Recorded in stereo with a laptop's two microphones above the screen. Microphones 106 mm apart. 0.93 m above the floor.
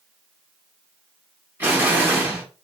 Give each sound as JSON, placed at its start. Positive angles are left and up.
{"t": 1.6, "sound": "an explosion", "side_deg": -20, "distance_m": 1.4}